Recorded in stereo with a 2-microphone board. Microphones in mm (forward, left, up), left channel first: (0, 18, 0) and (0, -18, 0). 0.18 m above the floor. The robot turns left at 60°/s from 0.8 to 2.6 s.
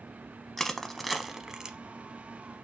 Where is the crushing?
10° left (ahead or behind), 0.6 m; by 1.8 s 20° right (ahead or behind), 0.6 m.